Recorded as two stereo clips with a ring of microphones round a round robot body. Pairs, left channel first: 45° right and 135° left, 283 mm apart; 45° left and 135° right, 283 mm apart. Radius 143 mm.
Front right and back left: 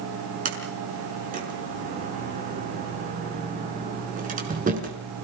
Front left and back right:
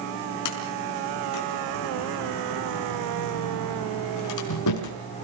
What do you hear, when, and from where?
0.5 s a sliding door: 70° left, 5 m